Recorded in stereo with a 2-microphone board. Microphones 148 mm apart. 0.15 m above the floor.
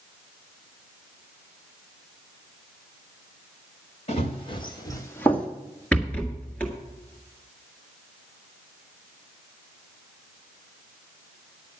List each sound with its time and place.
4.1 s running footsteps: 45° left (ahead or behind), 2.5 m; by 5.5 s 5° left (ahead or behind), 1.8 m
5.9 s a rattle: 10° left (ahead or behind), 1.7 m